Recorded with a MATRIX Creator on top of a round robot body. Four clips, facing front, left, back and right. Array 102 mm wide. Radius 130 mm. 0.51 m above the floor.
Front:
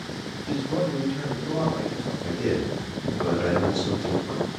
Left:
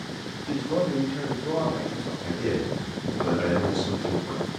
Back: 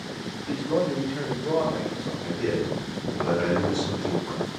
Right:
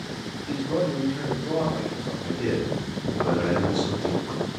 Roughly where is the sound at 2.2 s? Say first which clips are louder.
Right 1 dB, front 1 dB; behind.